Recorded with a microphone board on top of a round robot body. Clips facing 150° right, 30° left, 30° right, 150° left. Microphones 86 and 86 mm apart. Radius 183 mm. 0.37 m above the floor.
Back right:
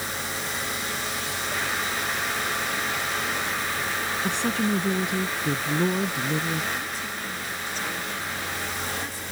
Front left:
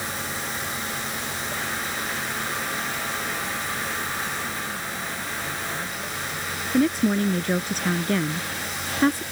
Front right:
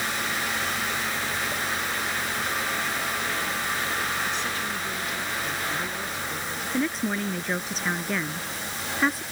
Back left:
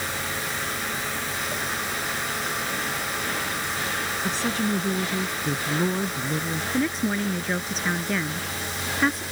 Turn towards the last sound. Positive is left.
turn(degrees=60)